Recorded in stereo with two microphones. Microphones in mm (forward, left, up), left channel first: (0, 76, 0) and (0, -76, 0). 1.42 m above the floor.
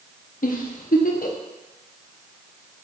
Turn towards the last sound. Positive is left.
turn(degrees=65)  # may be behind; listen again after turning